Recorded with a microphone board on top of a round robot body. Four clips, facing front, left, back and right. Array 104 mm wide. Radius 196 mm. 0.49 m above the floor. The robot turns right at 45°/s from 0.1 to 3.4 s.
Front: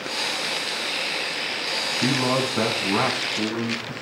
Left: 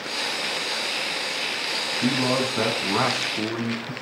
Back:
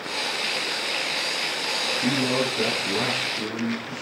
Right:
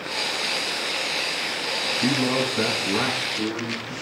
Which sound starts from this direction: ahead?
A man speaking, at 2.0 s.